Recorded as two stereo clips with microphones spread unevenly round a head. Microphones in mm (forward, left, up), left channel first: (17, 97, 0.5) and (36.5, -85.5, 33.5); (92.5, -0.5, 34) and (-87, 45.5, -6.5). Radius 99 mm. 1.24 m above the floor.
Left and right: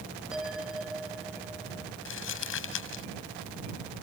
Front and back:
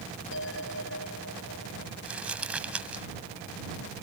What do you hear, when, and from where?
0.3 s a bell: 5° left
2.0 s crumpling: 80° left